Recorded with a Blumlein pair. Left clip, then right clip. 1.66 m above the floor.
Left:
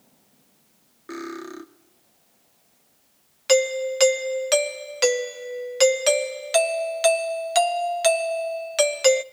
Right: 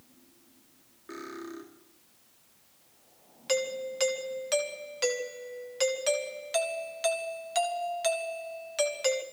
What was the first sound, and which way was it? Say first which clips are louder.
Cutlery clinking: left 6 dB; 70° left.